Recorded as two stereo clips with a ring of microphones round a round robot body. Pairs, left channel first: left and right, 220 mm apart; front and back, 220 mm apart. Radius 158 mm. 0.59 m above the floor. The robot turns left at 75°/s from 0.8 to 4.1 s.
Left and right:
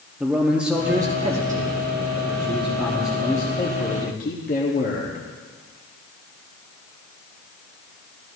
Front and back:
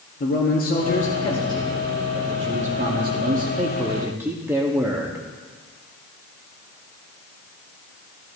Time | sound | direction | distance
0.2 | a man speaking | 5° right | 1.1 m